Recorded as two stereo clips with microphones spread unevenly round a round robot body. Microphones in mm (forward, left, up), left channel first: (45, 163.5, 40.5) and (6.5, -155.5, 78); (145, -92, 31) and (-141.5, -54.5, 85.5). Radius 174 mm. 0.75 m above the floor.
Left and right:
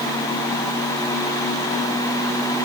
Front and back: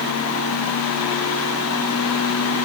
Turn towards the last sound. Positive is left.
No sound to turn to.